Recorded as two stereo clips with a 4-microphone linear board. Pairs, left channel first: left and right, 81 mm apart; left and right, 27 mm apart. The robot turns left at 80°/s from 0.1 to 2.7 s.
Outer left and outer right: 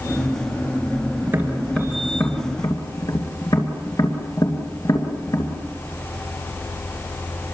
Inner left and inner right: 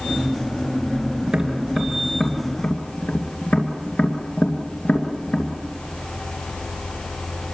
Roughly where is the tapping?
Right.